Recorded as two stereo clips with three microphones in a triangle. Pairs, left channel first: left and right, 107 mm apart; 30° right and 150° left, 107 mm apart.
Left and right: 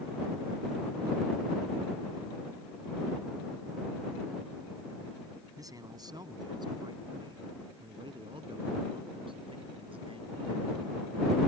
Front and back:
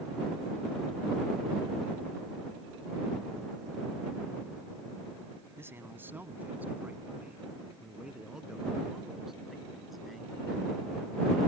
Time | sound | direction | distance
5.6 | a man speaking | 145° right | ?